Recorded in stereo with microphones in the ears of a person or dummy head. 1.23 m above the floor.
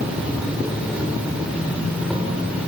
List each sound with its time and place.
0.0 s an insect: 5° right (ahead or behind), 7 m